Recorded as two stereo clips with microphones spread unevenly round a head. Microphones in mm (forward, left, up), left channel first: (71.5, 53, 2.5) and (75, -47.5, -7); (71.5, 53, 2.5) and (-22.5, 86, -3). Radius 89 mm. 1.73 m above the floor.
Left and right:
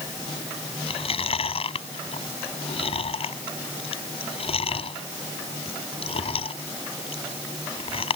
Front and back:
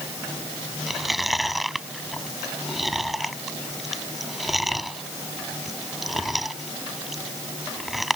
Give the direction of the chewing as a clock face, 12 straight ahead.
10 o'clock.